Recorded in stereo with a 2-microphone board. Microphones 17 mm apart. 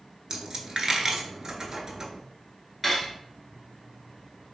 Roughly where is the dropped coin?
Right.